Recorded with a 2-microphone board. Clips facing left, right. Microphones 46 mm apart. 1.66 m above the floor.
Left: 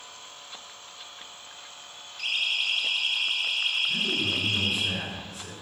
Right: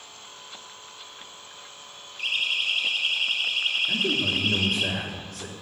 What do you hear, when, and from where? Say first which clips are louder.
2.2 s a siren: right 2 dB; 25° right (ahead or behind), 4.5 m; by 4.9 s 45° right (ahead or behind), 4.5 m
3.9 s a man speaking: right 2 dB; 75° right (ahead or behind), 4 m